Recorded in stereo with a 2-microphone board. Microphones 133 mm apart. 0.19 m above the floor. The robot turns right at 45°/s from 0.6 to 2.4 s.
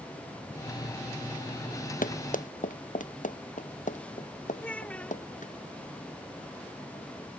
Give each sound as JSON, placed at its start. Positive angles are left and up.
{"t": 2.0, "sound": "running footsteps", "side_deg": 85}
{"t": 4.6, "sound": "a child speaking", "side_deg": 10}